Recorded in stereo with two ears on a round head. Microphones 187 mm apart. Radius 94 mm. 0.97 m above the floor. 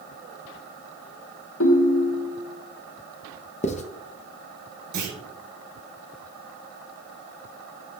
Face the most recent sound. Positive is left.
turn(degrees=-50)  # may be behind; listen again after turning